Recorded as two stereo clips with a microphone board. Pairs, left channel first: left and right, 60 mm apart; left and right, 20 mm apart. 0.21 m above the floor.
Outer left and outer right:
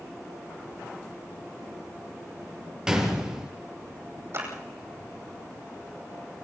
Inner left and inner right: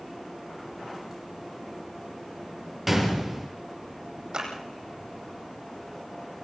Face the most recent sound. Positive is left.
turn(degrees=-45)  # may be behind; listen again after turning